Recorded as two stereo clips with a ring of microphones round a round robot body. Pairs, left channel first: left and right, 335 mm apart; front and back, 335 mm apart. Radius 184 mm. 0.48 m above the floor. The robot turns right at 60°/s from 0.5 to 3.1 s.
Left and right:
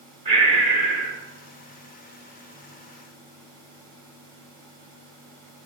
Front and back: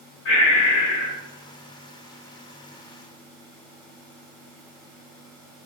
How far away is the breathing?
About 1.7 m.